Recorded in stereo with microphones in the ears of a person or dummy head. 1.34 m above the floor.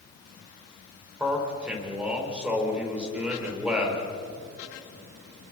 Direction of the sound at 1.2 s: 5° right (ahead or behind).